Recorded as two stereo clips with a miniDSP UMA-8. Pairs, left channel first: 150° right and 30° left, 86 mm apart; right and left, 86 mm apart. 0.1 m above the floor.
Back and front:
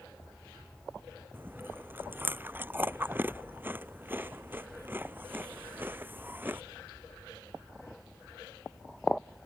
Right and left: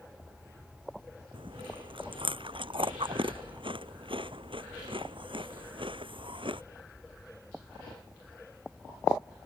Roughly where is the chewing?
Left.